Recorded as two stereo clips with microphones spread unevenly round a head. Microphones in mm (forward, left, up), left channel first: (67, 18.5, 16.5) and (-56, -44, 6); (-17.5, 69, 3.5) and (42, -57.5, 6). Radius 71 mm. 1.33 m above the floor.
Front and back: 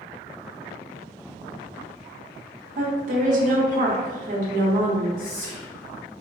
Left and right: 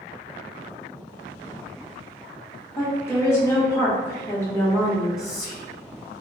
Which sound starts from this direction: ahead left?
Whispering, at 5.2 s.